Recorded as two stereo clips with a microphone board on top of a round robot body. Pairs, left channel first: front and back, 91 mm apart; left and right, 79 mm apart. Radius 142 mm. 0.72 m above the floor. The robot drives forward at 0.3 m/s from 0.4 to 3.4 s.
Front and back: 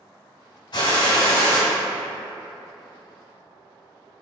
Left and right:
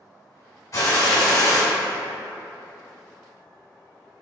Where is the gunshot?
35° left, 1.3 m; by 1.6 s 45° left, 1.1 m.